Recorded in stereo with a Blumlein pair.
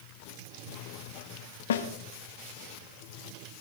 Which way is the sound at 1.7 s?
60° left.